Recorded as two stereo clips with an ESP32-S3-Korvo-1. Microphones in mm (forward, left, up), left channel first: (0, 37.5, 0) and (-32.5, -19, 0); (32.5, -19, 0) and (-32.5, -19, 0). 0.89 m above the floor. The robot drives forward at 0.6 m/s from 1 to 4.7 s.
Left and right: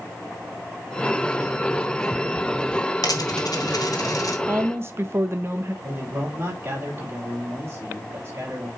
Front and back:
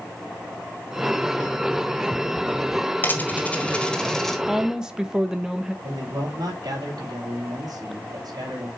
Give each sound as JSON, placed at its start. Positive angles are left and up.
{"t": 3.0, "sound": "a dropped coin", "azimuth_deg": 60, "distance_m": 1.7}
{"t": 4.5, "sound": "a woman speaking", "azimuth_deg": -95, "distance_m": 1.1}
{"t": 5.8, "sound": "a man speaking", "azimuth_deg": -175, "distance_m": 4.5}